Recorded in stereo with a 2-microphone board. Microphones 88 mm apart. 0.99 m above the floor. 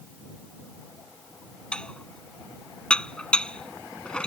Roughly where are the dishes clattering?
Centre.